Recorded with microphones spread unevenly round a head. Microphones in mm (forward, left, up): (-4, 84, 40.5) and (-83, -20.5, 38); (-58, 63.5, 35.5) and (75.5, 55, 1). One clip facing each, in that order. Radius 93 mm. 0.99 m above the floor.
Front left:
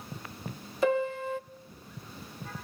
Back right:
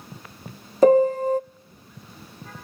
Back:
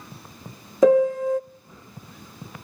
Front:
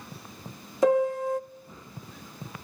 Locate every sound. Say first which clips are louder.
0.8 s a piano: back right 12 dB, back 6 dB; straight behind, 0.5 m